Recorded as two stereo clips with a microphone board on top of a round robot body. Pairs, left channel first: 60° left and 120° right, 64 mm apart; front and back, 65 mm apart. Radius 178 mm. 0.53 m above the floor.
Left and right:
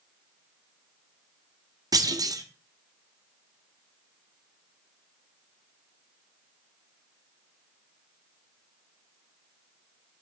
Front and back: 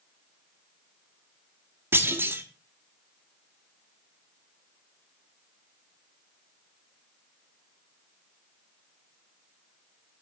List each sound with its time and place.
1.9 s a clunk: 130° right, 2.5 m